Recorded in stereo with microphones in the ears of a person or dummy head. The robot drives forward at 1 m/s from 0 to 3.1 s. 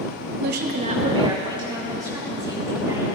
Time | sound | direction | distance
0.4 | a woman speaking | 60° right (ahead or behind) | 0.6 m